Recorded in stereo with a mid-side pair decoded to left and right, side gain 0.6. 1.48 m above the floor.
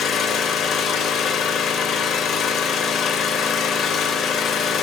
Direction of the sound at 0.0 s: 55° left.